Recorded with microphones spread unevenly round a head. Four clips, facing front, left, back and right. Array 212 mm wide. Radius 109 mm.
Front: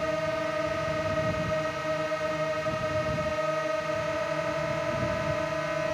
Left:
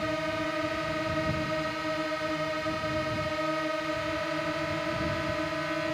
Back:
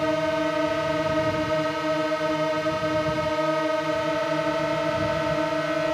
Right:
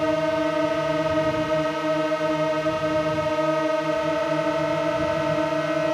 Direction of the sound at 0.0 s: 125° right.